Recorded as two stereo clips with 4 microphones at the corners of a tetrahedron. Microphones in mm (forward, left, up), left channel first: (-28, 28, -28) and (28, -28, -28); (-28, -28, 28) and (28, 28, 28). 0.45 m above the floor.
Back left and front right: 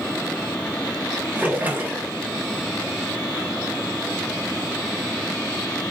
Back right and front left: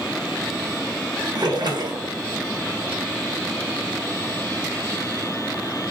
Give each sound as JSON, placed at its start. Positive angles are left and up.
{"t": 1.4, "sound": "a splash", "azimuth_deg": 20, "distance_m": 0.7}